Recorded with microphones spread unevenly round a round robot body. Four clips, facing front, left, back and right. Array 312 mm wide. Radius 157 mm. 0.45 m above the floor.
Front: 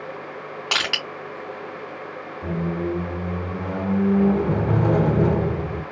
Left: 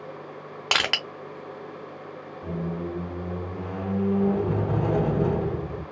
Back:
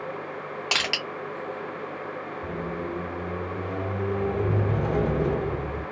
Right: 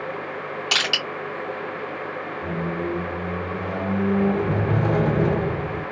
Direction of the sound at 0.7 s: 85° left.